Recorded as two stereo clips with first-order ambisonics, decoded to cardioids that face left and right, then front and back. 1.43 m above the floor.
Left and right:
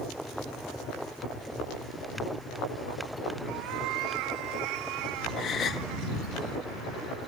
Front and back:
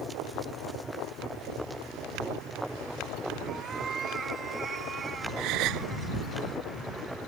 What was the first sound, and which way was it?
A cat meowing, 110° right.